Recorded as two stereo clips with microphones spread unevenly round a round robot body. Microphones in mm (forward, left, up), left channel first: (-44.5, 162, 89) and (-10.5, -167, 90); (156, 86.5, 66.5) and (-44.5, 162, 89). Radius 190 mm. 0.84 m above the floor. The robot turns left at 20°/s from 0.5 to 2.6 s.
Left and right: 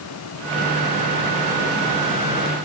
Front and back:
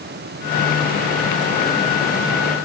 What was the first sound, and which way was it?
Only background noise.